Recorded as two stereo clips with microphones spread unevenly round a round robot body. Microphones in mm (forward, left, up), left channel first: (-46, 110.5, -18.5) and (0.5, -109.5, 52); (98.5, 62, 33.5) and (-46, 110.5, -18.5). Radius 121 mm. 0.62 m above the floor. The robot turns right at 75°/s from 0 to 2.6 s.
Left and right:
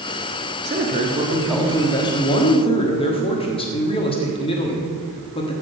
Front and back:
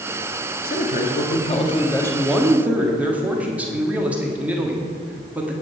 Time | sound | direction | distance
0.6 | a man speaking | 35° right | 1.5 m